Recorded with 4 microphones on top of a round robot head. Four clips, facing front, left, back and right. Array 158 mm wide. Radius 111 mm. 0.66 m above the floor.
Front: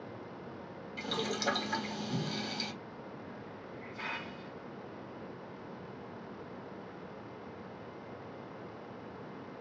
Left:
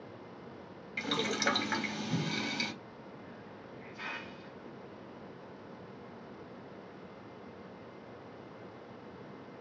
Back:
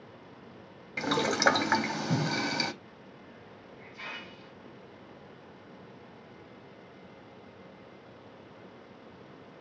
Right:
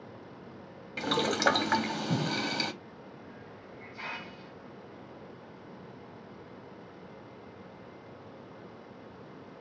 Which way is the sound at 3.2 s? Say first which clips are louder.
Right 1 dB, front 4 dB; 50° right.